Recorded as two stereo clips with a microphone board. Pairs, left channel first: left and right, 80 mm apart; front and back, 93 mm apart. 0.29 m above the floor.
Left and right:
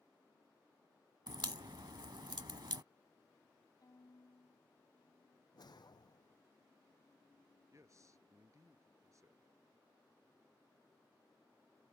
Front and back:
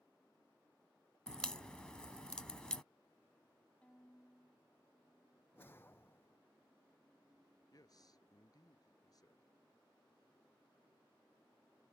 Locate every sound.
1.3 s a crack: 80° right
3.8 s a violin: 75° left
5.5 s a whoosh: 65° left
7.7 s a man speaking: 45° right